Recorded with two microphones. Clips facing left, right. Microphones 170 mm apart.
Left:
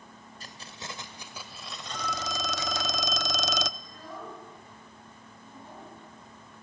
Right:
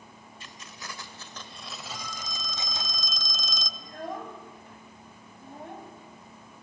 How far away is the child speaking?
About 4.5 m.